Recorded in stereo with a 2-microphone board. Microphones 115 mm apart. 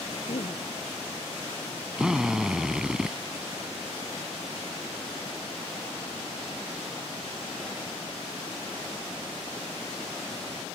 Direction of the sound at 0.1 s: 65° left (ahead or behind).